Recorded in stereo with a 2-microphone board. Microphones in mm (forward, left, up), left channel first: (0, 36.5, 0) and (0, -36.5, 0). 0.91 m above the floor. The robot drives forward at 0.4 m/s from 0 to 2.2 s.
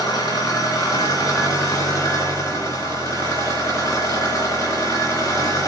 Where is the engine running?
55° left (ahead or behind), 3 m; by 5.7 s 45° left (ahead or behind), 3.5 m.